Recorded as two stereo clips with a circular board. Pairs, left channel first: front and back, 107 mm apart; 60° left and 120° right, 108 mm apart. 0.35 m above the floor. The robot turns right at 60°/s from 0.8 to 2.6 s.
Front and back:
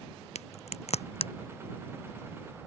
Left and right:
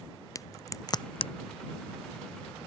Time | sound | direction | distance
0.3 | a crack | straight ahead | ?